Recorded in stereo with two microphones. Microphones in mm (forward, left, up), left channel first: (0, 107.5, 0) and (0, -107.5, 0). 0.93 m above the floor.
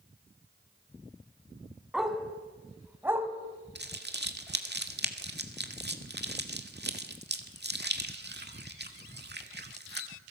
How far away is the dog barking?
About 2.5 m.